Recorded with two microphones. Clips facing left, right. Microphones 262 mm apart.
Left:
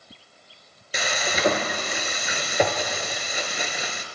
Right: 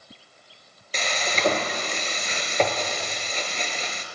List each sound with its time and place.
0.9 s frying: 10° left (ahead or behind), 1.0 m